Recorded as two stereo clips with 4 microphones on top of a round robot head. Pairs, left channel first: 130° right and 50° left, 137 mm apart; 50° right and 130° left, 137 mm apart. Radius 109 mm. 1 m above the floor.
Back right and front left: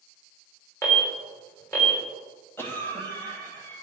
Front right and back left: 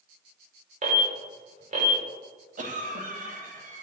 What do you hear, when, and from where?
0.8 s an alarm: 160° left, 3.5 m
2.6 s a cough: 155° left, 2 m